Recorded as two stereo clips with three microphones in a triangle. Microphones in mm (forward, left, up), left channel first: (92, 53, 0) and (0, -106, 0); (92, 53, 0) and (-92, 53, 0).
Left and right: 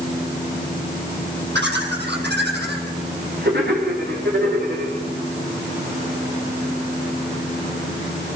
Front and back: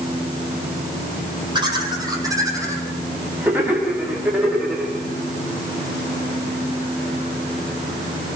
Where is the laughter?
115° right, 5.5 m; by 4.9 s 95° right, 7 m.